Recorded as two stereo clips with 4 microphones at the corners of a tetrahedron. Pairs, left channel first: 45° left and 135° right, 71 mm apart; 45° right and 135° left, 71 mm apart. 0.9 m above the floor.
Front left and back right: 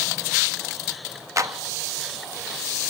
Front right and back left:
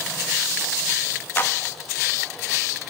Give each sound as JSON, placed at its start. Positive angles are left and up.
{"t": 1.4, "sound": "a clap", "azimuth_deg": -100, "distance_m": 1.0}